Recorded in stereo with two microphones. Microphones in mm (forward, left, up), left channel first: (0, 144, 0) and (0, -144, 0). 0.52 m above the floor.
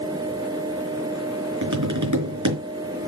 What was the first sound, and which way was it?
Tapping, 75° right (ahead or behind).